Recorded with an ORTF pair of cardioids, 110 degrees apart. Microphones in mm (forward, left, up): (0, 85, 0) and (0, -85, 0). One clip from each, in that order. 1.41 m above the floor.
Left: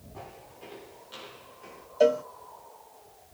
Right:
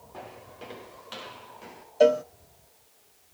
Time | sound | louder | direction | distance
0.1 | footsteps | right 3 dB | 65° right | 7.5 m
2.0 | a cowbell | right 2 dB | 15° right | 0.5 m